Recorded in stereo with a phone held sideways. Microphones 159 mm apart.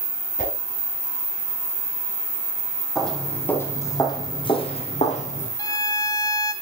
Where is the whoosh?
60° left (ahead or behind), 5.5 m.